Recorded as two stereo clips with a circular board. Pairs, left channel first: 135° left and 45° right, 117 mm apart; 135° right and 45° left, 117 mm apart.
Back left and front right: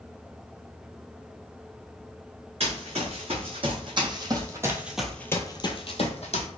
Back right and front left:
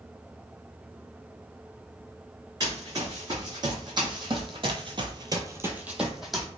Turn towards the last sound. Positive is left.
turn(degrees=135)